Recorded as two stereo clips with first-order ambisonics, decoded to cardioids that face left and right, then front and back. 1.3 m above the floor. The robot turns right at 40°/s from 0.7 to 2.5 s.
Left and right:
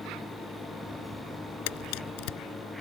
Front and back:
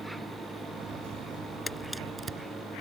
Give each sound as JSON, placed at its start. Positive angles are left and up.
{"t": 1.7, "sound": "a camera shutter", "azimuth_deg": 80}